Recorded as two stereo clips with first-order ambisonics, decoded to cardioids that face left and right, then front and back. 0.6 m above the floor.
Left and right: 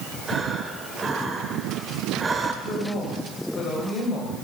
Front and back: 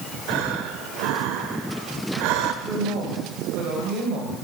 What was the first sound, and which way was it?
Breathing, 165° right.